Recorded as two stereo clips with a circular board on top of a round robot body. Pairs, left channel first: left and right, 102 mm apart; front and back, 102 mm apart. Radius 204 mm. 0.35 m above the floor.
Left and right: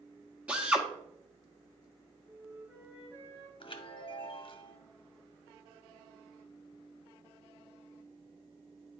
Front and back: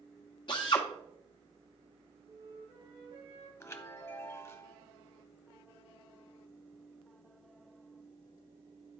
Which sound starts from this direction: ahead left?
A chime, at 3.6 s.